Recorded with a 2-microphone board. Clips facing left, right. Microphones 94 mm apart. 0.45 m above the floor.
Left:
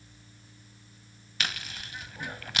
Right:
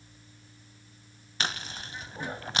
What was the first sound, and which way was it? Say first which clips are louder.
Chewing: right 2 dB; 30° right (ahead or behind).